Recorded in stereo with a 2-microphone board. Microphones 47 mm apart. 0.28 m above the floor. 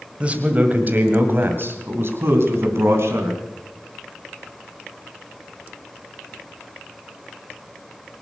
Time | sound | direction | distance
0.2 | a man speaking | 25° right (ahead or behind) | 1.7 m